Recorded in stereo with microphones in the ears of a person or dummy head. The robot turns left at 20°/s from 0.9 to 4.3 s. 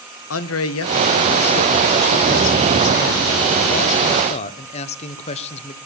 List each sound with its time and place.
0.3 s a man speaking: 105° left, 1.0 m; by 5.8 s 35° left, 1.0 m